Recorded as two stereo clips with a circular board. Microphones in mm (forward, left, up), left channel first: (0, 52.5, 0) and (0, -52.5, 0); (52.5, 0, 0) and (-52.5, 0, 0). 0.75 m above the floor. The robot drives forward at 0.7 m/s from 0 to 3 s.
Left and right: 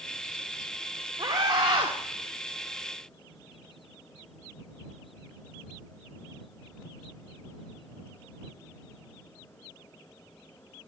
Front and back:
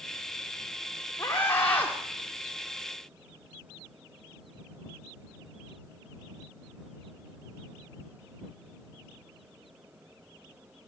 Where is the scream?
60° right, 1.7 m; by 1.9 s 75° right, 1.5 m.